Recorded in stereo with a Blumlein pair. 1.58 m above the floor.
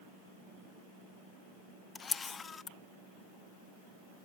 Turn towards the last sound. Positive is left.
turn(degrees=15)